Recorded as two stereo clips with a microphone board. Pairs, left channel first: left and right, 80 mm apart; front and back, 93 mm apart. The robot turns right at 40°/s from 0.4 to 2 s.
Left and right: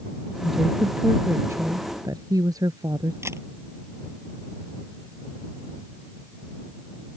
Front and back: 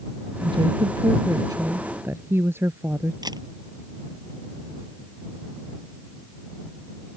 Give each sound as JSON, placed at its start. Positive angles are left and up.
{"t": 0.4, "sound": "a woman speaking", "azimuth_deg": 175}
{"t": 3.2, "sound": "a camera shutter", "azimuth_deg": -140}